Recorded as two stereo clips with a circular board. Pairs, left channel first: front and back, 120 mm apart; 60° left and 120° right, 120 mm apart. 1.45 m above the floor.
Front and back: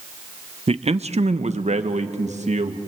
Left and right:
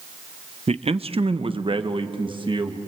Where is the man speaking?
150° right, 0.7 m; by 2.8 s 165° right, 1.9 m.